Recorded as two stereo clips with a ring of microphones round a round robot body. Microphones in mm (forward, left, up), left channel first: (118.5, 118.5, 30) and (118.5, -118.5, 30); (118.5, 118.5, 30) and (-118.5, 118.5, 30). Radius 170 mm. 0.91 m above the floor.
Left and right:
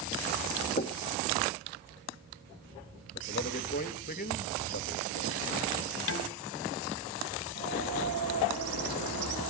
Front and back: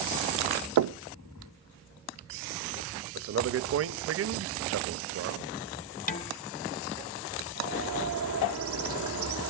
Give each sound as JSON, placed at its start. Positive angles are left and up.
{"t": 0.8, "sound": "knocking", "azimuth_deg": 160, "distance_m": 0.6}
{"t": 3.1, "sound": "a man speaking", "azimuth_deg": 155, "distance_m": 0.8}
{"t": 6.1, "sound": "dishes clattering", "azimuth_deg": 60, "distance_m": 1.2}
{"t": 7.5, "sound": "a bird", "azimuth_deg": -135, "distance_m": 1.9}